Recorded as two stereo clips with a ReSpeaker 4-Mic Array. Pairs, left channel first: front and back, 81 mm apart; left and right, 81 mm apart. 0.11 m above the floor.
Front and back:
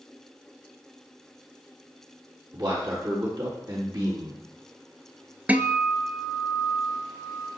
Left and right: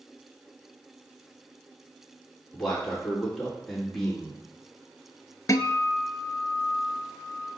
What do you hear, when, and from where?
2.5 s a man speaking: straight behind, 4 m
5.5 s a guitar: 115° left, 0.5 m